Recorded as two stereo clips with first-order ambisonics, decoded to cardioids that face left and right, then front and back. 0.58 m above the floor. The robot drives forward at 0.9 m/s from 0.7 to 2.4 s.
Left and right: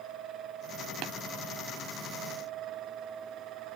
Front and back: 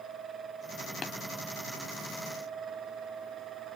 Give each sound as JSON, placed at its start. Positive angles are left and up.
{"t": 1.0, "sound": "tapping", "azimuth_deg": -60, "distance_m": 0.8}